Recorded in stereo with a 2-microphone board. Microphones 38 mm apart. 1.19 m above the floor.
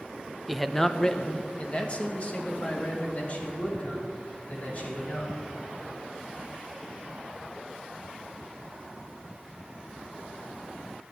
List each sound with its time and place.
0.5 s a man speaking: 5° right (ahead or behind), 0.6 m; by 5.3 s 45° left (ahead or behind), 4.5 m